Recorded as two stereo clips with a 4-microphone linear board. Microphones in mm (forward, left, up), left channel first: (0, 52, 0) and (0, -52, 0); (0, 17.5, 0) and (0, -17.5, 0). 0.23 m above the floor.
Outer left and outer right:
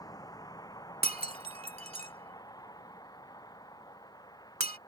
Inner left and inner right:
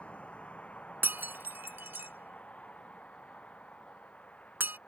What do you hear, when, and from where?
0.0 s a vehicle: 35° left (ahead or behind)
1.0 s breaking glass: 75° right (ahead or behind)